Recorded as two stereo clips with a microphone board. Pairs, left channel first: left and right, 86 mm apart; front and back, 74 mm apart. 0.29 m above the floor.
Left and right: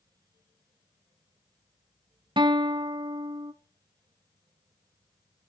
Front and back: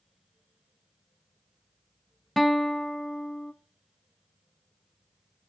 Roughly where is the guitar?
Right.